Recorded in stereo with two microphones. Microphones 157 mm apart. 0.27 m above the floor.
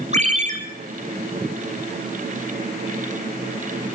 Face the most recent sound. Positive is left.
turn(degrees=-50)  # may be behind; listen again after turning